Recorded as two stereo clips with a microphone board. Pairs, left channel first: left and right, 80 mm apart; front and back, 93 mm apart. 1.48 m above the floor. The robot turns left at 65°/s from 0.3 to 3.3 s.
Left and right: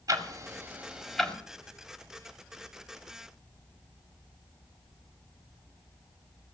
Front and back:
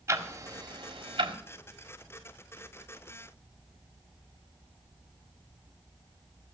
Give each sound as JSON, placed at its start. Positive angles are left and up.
{"t": 0.1, "sound": "ticking", "azimuth_deg": -120, "distance_m": 1.7}